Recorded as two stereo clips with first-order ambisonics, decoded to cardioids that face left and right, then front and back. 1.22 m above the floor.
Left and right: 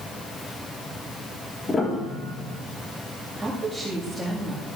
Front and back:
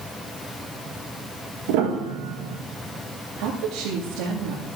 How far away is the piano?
About 1.5 m.